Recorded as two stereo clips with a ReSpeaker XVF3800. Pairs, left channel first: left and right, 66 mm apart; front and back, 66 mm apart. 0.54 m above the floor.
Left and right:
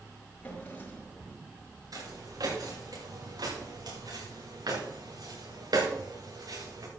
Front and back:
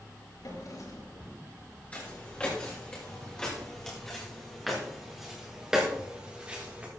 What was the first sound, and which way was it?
A drawer, 25° left.